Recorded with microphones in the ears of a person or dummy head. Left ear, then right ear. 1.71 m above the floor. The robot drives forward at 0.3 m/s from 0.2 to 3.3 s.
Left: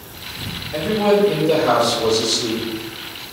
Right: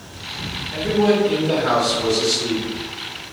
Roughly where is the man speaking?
Right.